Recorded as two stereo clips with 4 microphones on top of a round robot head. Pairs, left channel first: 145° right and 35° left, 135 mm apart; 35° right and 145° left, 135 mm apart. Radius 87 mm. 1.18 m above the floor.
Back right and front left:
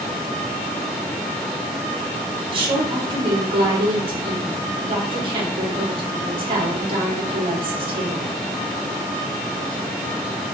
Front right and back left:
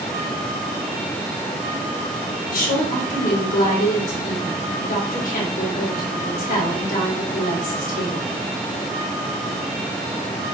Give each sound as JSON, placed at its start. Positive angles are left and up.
{"t": 2.5, "sound": "a woman speaking", "azimuth_deg": -15, "distance_m": 2.5}